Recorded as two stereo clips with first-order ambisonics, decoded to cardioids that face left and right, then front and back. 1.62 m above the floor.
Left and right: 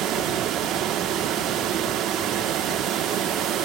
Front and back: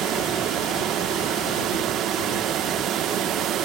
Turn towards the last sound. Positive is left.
turn(degrees=-135)